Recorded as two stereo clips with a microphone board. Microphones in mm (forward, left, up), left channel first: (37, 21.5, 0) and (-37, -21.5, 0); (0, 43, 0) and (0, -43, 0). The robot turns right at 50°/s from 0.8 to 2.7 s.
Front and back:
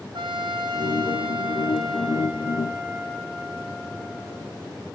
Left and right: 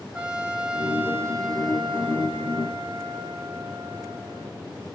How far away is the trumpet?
About 1.7 m.